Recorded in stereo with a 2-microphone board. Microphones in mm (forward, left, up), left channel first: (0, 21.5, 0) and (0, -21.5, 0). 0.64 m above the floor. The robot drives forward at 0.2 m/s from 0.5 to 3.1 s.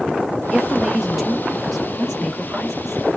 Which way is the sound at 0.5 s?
5° right (ahead or behind).